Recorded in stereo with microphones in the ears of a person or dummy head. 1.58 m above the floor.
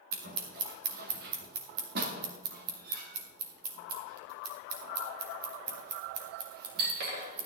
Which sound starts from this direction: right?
Scissors, at 0.1 s.